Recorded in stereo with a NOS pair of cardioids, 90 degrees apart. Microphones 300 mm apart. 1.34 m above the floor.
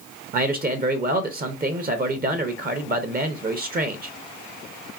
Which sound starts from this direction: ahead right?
A man speaking, at 0.3 s.